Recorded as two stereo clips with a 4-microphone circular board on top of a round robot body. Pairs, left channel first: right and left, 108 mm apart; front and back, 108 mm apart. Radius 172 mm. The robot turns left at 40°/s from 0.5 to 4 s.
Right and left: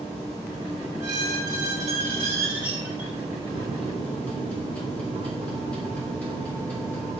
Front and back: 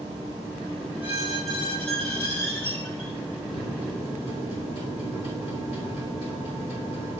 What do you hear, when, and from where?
1.0 s a squeak: 110° left, 2 m; by 3.1 s 25° left, 2 m
3.5 s a microwave: 10° left, 3.5 m; by 7.2 s 10° right, 3.5 m